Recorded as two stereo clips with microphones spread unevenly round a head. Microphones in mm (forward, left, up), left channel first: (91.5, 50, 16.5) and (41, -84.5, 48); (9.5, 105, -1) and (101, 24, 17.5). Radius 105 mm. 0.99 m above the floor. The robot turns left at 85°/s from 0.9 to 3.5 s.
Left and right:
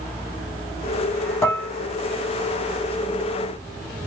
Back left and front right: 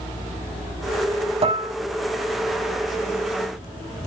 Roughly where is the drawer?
I don't hear a drawer.